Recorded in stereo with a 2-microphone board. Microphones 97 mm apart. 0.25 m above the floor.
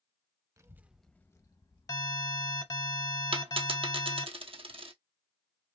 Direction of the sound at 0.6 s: 35° right (ahead or behind).